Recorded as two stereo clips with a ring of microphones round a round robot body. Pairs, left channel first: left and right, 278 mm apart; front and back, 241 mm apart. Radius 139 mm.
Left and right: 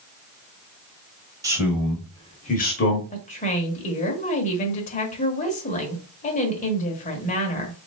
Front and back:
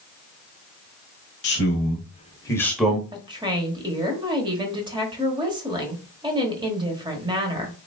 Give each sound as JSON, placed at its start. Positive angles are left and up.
{"t": 1.4, "sound": "a man speaking", "azimuth_deg": -15, "distance_m": 1.1}
{"t": 3.1, "sound": "a woman speaking", "azimuth_deg": 125, "distance_m": 1.1}